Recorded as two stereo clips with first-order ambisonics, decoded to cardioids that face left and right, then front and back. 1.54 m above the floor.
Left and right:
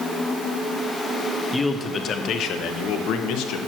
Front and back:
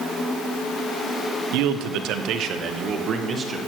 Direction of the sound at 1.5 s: 170° left.